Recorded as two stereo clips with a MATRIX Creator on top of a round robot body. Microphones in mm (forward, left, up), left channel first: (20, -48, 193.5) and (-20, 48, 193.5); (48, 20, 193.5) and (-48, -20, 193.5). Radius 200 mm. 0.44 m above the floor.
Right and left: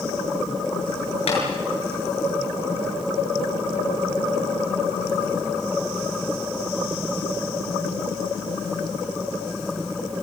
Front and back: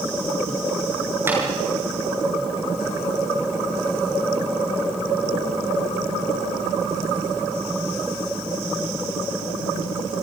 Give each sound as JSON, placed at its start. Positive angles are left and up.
{"t": 1.3, "sound": "tapping", "azimuth_deg": -90, "distance_m": 8.0}